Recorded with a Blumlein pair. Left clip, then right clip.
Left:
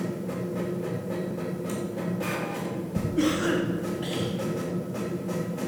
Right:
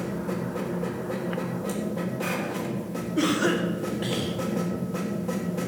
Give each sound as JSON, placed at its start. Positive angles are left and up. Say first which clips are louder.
{"t": 0.0, "sound": "a machine running", "louder": "right 1 dB", "azimuth_deg": -60, "distance_m": 3.0}
{"t": 3.2, "sound": "a cough", "louder": "right 1 dB", "azimuth_deg": -50, "distance_m": 2.0}